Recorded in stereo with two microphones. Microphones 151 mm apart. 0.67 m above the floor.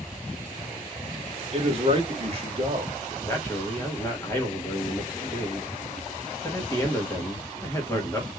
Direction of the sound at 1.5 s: 40° right (ahead or behind).